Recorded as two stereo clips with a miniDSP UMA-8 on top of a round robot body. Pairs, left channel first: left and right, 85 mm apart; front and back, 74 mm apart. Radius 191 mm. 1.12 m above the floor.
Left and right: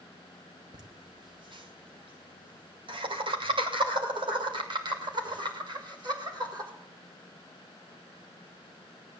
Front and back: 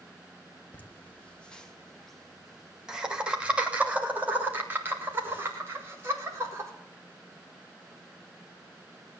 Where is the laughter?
65° right, 2.5 m; by 6.7 s 125° right, 5 m.